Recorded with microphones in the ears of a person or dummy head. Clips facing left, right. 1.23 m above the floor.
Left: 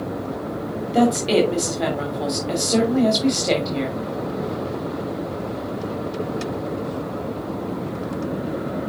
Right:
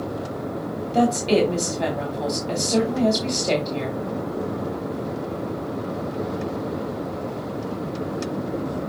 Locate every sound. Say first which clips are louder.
0.9 s a woman speaking: left 2 dB; 10° left (ahead or behind), 3 m